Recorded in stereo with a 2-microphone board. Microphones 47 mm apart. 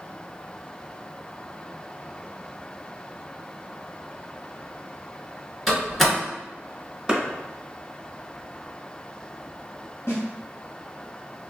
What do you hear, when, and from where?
5.7 s a door slam: 5° left (ahead or behind), 1.9 m
7.1 s a clap: 20° right (ahead or behind), 1.1 m
10.1 s a snare drum: 70° left (ahead or behind), 1.6 m